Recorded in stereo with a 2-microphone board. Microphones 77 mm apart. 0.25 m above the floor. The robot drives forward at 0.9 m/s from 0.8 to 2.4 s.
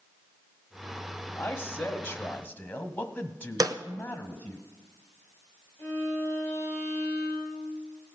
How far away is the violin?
About 5 m.